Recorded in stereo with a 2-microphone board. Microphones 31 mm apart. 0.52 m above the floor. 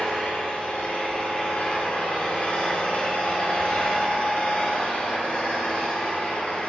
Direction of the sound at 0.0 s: 45° left (ahead or behind).